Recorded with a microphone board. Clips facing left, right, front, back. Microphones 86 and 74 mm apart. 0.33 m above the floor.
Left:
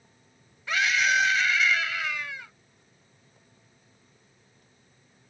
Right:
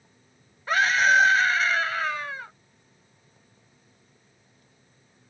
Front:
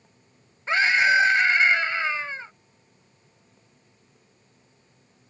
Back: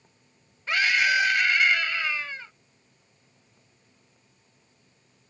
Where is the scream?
55° right.